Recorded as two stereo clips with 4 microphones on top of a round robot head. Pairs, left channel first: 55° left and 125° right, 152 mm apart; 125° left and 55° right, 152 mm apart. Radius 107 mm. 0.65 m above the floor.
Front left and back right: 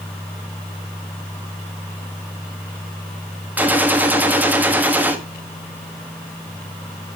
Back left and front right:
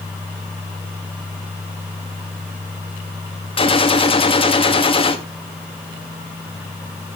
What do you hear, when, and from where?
3.6 s a gunshot: 160° left, 1.2 m